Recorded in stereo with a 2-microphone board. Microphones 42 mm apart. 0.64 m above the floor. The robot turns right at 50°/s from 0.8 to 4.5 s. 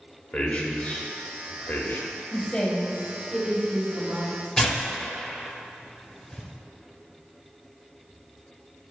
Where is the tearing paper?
15° left (ahead or behind), 1.6 m.